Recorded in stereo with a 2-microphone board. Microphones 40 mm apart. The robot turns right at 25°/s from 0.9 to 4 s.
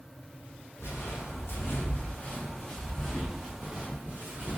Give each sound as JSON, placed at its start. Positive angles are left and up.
{"t": 0.8, "sound": "footsteps", "side_deg": 85, "distance_m": 1.7}